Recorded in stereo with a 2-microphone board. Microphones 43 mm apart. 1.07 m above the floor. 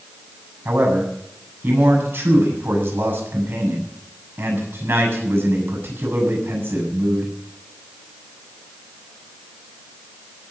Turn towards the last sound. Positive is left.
turn(degrees=-55)  # may be behind; listen again after turning